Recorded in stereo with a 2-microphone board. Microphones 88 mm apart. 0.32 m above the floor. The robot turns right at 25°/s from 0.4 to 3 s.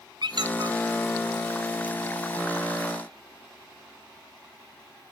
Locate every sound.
0.2 s a squeak: 60° right (ahead or behind), 0.8 m; by 0.8 s 50° right (ahead or behind), 0.8 m